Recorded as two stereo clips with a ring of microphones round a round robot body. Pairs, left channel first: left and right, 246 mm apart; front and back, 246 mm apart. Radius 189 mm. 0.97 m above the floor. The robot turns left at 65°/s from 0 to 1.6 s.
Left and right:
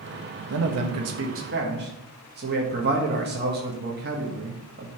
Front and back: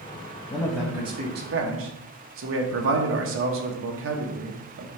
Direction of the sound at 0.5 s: 70° right.